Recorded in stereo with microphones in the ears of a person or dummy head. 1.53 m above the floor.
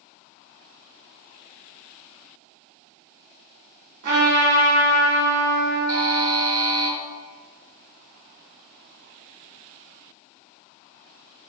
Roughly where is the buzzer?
Right.